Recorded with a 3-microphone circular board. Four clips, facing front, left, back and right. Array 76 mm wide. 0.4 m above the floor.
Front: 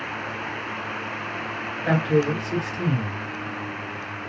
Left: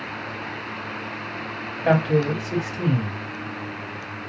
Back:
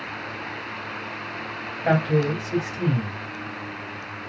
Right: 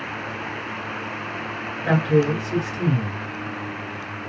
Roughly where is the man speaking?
Behind left.